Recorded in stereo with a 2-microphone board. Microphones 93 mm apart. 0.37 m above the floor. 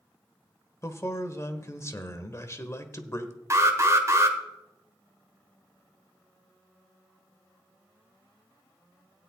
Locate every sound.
0.8 s a man speaking: 30° left (ahead or behind), 1.0 m
3.5 s an alarm: 35° right (ahead or behind), 1.3 m